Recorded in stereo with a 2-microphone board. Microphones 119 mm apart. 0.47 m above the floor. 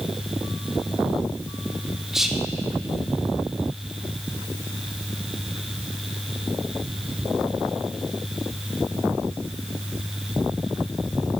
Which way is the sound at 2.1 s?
5° right (ahead or behind).